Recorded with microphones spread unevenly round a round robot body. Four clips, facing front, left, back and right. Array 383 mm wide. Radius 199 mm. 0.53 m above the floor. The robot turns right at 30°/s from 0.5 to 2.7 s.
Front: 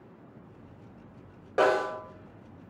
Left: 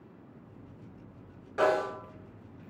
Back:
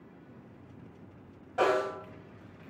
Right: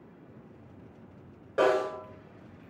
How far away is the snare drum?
About 1.1 m.